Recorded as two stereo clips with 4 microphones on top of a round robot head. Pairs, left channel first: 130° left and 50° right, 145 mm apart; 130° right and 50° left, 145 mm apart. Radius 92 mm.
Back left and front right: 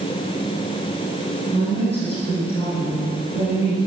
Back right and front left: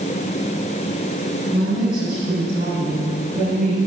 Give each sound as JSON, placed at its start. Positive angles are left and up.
{"t": 1.5, "sound": "a woman speaking", "azimuth_deg": 80, "distance_m": 5.5}